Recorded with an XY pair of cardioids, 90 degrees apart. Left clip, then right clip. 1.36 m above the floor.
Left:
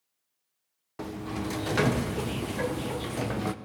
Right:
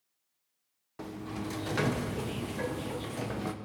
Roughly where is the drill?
No drill in this recording.